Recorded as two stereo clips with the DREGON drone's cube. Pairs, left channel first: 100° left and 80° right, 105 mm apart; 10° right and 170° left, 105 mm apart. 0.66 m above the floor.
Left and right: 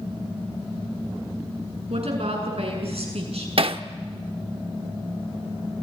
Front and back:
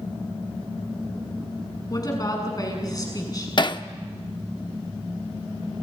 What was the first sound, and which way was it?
A woman speaking, 65° right.